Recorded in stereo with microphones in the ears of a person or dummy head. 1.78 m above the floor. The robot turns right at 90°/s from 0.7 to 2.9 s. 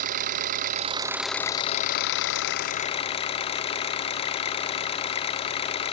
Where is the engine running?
50° right, 0.8 m; by 5.9 s 145° left, 0.8 m.